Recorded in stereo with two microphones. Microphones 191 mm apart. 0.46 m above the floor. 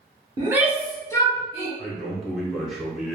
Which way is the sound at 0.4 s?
20° right (ahead or behind).